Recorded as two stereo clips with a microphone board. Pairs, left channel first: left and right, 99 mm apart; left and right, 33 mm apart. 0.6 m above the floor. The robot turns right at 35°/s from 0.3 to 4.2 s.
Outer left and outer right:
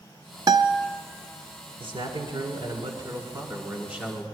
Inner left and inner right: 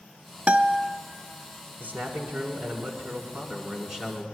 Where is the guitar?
45° right (ahead or behind), 0.5 m; by 0.9 s 30° right (ahead or behind), 0.5 m.